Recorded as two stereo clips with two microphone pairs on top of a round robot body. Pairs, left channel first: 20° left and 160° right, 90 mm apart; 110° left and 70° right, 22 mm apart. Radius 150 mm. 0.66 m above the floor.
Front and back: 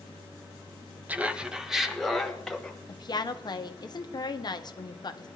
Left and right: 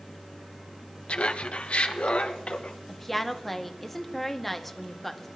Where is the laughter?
125° left, 1.4 m; by 2.8 s 105° left, 2.5 m.